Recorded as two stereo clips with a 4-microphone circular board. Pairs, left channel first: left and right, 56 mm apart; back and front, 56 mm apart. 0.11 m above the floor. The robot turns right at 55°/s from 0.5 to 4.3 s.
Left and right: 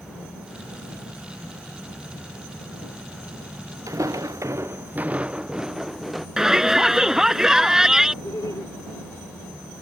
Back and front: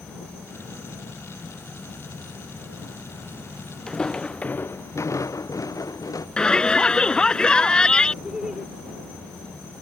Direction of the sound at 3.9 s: 100° right.